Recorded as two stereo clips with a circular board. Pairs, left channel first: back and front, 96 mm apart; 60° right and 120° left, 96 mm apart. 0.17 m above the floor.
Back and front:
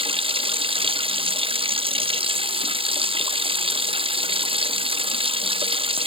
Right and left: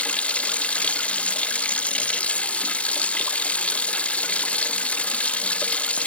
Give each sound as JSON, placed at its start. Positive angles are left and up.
{"t": 0.0, "sound": "running water", "azimuth_deg": 20}